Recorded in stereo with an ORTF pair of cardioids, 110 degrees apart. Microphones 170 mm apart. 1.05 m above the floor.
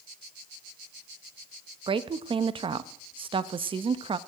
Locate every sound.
1.9 s a woman speaking: 30° right, 1.0 m